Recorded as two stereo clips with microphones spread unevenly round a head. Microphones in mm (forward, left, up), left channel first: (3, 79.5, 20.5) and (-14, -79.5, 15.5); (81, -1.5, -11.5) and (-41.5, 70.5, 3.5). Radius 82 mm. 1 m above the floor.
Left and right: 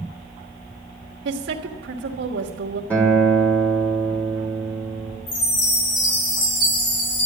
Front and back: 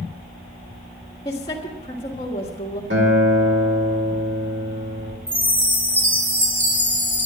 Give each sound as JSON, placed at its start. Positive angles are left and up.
{"t": 1.2, "sound": "a woman speaking", "azimuth_deg": -90, "distance_m": 1.7}
{"t": 2.9, "sound": "a guitar", "azimuth_deg": 165, "distance_m": 4.0}
{"t": 5.3, "sound": "a chime", "azimuth_deg": 70, "distance_m": 5.5}